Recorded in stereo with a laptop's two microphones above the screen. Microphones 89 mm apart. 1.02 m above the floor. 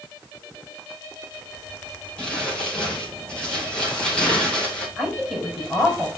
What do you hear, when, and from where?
2.2 s crumpling: 10° left (ahead or behind), 4.5 m
5.0 s a woman speaking: 5° right (ahead or behind), 5.5 m